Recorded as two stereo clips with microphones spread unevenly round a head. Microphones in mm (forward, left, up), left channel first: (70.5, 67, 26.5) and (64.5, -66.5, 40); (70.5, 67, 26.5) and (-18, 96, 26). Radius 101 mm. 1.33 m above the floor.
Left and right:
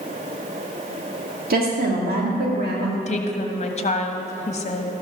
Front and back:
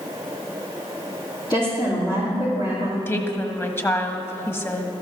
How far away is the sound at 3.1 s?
About 1.5 m.